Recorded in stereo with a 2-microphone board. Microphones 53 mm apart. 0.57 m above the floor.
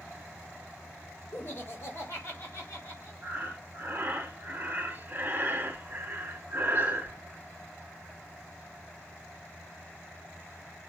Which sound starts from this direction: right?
Breathing, at 3.2 s.